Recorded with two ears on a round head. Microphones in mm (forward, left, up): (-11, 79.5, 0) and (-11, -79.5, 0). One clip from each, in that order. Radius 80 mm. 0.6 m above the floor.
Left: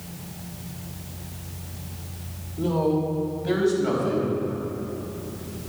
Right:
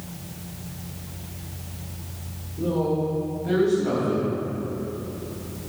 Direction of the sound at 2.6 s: 65° left (ahead or behind).